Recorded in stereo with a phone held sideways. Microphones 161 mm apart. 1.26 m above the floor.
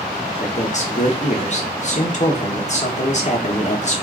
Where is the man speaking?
45° left (ahead or behind), 1.0 m.